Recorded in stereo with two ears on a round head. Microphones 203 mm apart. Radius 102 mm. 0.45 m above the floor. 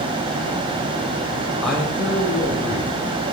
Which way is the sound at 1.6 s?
Centre (ahead or behind).